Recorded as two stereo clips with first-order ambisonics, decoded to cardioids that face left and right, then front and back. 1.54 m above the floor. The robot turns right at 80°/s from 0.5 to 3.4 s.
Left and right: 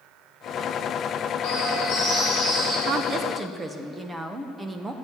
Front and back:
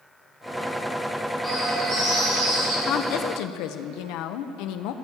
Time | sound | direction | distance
1.4 | a bird | 85° left | 5 m
2.9 | a woman speaking | 55° right | 0.7 m